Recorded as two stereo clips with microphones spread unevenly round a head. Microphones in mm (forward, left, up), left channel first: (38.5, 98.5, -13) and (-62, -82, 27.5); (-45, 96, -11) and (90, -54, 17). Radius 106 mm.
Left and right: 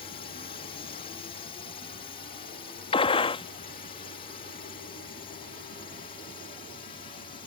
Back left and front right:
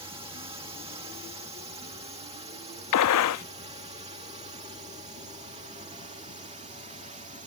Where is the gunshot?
130° left.